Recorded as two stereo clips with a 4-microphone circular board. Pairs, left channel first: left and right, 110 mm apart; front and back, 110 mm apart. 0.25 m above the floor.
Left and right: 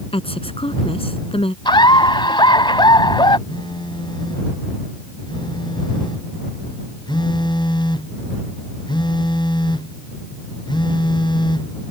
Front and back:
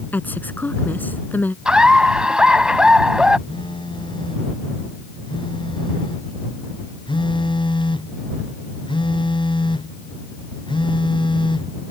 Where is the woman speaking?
70° left.